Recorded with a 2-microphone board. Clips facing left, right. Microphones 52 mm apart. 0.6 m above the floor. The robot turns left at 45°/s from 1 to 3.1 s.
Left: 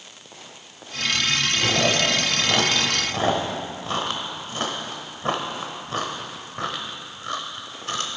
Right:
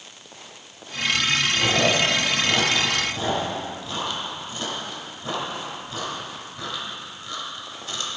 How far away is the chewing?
About 0.9 m.